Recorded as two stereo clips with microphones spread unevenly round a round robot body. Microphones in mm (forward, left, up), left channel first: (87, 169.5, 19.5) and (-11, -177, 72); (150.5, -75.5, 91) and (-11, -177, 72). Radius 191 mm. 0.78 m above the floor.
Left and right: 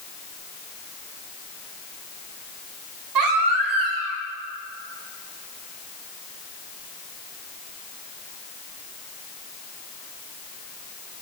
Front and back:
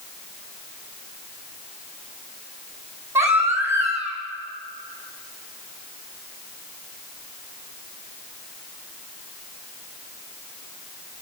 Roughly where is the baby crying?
Right.